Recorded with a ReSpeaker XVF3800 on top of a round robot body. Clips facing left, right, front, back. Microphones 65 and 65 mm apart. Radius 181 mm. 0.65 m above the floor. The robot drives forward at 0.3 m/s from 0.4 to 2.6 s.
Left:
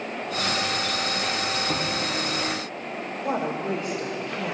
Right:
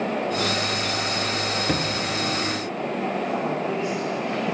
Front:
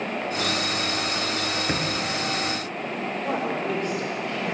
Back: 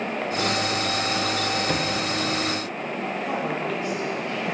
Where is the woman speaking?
50° left, 3 m.